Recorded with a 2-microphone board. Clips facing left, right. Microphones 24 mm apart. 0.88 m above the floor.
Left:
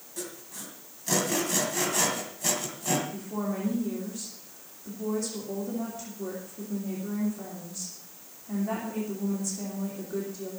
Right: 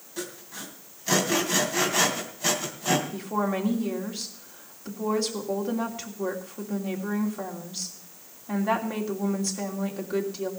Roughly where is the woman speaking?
Right.